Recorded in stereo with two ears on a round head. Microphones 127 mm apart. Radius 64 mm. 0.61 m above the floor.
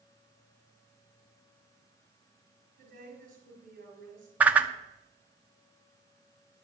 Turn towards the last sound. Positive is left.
turn(degrees=-10)  # may be behind; listen again after turning